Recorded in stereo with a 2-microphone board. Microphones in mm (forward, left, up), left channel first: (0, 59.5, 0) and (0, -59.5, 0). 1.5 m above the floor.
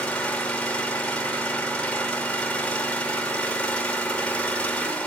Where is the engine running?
10° left (ahead or behind), 2.5 m.